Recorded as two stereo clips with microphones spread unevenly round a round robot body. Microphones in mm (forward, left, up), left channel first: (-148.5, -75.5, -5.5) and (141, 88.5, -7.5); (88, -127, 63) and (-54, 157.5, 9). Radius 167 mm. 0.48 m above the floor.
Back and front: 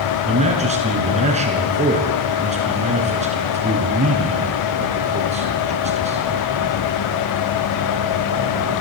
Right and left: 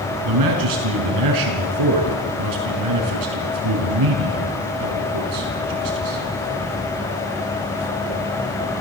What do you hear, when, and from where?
0.2 s a man speaking: 100° left, 5.5 m